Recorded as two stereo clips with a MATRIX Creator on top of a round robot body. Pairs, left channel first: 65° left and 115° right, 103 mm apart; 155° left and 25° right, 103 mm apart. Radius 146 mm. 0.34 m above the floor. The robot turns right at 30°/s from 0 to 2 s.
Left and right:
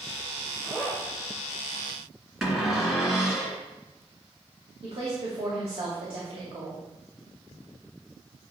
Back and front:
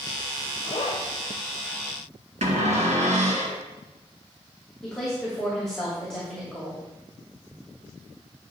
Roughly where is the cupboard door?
Ahead right.